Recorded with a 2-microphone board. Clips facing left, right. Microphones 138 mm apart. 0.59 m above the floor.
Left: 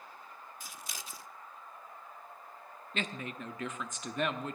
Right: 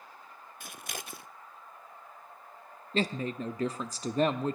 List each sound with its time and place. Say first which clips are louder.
0.6 s scissors: right 8 dB; 65° right (ahead or behind), 0.6 m
2.9 s a woman speaking: right 8 dB; 35° right (ahead or behind), 0.7 m